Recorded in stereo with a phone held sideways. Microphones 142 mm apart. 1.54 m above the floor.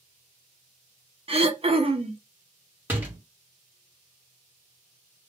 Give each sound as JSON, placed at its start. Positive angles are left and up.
{"t": 1.3, "sound": "throat clearing", "side_deg": -45, "distance_m": 0.5}
{"t": 2.9, "sound": "a door slam", "side_deg": -15, "distance_m": 1.0}